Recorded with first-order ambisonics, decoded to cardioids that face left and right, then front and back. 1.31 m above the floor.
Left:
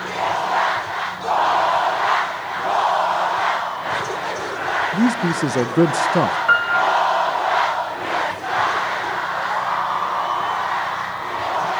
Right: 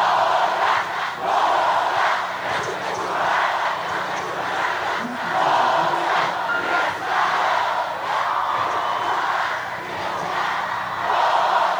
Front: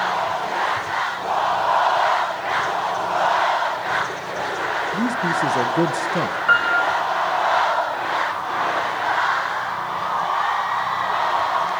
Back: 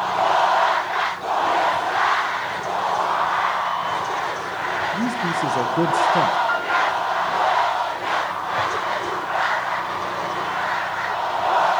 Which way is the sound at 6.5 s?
50° left.